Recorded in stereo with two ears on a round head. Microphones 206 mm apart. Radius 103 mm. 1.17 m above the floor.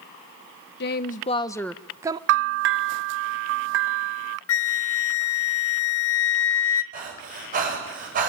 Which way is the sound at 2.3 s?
55° right (ahead or behind).